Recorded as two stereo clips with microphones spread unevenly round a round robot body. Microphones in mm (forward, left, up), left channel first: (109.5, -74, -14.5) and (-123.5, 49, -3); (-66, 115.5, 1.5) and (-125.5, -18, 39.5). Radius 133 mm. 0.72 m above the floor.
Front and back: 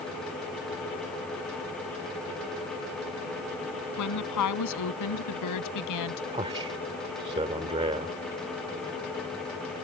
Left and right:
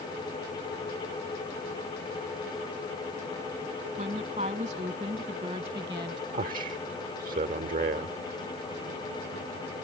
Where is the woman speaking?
50° right; by 6.2 s 40° right.